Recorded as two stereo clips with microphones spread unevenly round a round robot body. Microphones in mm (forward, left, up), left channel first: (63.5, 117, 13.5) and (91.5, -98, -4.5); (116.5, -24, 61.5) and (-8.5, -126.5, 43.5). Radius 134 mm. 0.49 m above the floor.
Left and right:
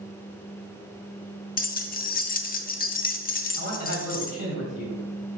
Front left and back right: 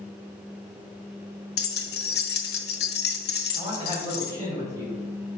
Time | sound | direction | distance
1.6 | keys jangling | 45° left | 0.7 m
3.5 | a man speaking | 115° left | 2.5 m